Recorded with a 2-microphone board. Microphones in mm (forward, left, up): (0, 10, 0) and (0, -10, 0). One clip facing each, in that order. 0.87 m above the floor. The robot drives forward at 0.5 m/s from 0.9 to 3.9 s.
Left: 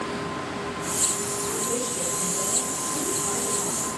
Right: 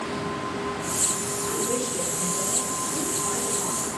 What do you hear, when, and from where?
1.4 s a woman speaking: 25° right (ahead or behind), 3.5 m; by 3.9 s 20° right (ahead or behind), 4.5 m